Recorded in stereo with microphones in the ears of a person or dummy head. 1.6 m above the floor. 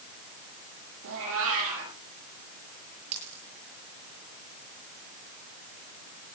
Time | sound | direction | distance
1.0 | a cat meowing | 75° right (ahead or behind) | 8.5 m
3.1 | a dropped coin | 40° right (ahead or behind) | 6.5 m